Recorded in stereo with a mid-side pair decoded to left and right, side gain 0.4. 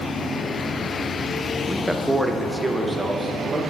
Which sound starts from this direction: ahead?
A man speaking, at 1.7 s.